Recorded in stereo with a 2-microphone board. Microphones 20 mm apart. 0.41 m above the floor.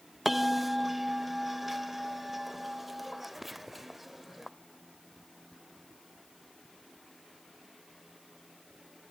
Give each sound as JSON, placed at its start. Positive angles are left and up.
{"t": 0.2, "sound": "a bell", "side_deg": -5, "distance_m": 0.5}